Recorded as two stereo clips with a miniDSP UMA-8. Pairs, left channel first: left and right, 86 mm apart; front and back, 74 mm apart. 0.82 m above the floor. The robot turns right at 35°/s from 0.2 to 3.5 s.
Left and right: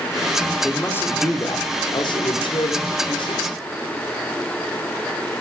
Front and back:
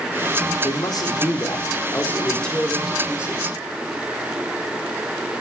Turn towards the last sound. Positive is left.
turn(degrees=115)